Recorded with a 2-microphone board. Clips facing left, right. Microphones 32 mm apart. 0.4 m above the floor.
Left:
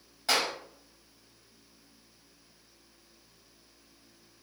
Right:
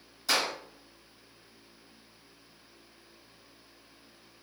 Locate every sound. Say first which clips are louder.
0.3 s a clap: even; 40° left (ahead or behind), 1.8 m